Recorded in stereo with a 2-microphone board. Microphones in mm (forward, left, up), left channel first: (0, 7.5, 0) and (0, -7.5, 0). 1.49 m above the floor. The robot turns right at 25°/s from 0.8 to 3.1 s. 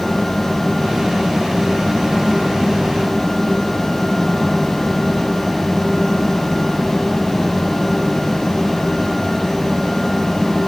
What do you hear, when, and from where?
Only background noise.